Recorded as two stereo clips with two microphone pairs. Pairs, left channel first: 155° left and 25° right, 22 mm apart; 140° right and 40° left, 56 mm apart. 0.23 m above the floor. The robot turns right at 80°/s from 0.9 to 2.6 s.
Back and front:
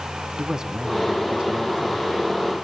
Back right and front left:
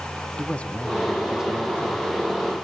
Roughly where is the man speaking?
Right.